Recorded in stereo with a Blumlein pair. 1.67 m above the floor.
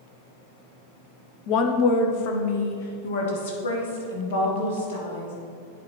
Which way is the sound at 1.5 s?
35° left.